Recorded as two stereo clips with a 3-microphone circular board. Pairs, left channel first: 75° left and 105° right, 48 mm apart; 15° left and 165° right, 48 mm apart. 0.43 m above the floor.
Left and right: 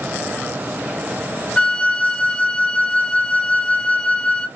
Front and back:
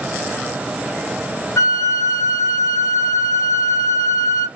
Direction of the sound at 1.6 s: 5° left.